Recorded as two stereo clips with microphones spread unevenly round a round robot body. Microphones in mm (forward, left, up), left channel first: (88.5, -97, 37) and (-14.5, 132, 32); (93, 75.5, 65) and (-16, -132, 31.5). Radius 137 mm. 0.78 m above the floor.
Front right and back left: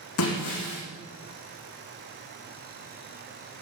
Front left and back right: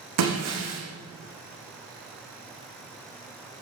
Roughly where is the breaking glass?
Right.